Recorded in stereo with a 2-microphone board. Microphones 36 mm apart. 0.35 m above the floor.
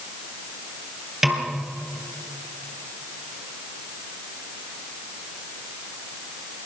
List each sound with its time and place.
1.2 s a snare drum: 10° right (ahead or behind), 3.5 m